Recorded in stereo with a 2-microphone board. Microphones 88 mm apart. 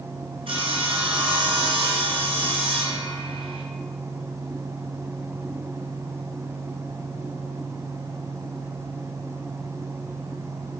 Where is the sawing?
80° right, 1.7 m.